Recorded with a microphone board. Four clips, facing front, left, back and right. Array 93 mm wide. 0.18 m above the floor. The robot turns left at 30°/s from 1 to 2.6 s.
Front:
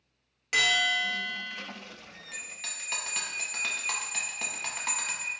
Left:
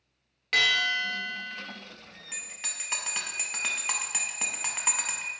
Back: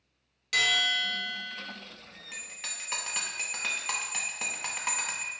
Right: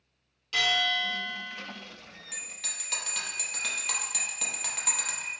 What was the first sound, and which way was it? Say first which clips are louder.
A bell: left 2 dB, front 2 dB; 70° left.